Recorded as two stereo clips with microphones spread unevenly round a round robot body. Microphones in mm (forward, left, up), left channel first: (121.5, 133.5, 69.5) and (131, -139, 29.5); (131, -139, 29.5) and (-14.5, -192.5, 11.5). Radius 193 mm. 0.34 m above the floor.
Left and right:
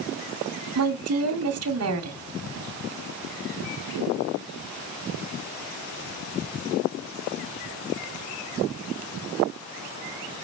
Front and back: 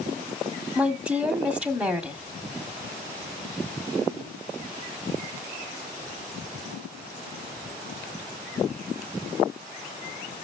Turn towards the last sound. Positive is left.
turn(degrees=-80)